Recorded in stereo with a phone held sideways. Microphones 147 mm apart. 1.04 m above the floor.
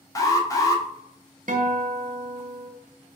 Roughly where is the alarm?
Left.